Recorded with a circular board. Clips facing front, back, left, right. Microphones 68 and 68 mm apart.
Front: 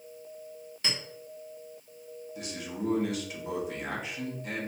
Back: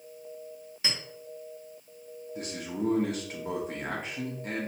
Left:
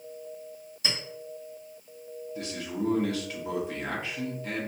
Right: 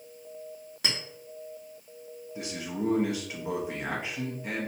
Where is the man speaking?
155° right, 0.9 m.